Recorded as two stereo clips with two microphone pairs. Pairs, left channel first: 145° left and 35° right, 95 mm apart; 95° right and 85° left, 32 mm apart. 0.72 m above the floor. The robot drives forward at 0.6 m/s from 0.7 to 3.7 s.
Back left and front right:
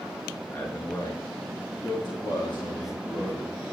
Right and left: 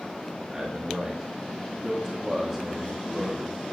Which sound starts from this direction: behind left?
A man speaking, at 0.5 s.